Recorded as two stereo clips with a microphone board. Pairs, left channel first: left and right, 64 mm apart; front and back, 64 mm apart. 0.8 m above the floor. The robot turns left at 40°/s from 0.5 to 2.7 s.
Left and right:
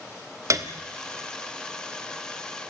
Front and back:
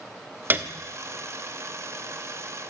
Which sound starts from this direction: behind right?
A piano, at 0.5 s.